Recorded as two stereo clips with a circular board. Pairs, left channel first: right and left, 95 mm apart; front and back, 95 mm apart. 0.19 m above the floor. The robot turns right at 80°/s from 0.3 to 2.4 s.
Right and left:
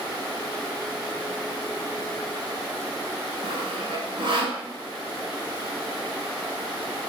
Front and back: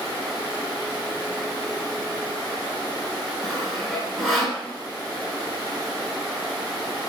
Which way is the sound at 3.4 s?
90° left.